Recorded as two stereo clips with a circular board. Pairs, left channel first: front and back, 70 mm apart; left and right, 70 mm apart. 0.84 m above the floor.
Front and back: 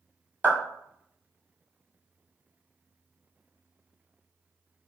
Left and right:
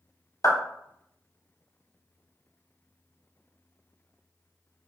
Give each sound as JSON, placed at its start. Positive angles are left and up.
{"t": 0.4, "sound": "a clap", "azimuth_deg": 120, "distance_m": 0.9}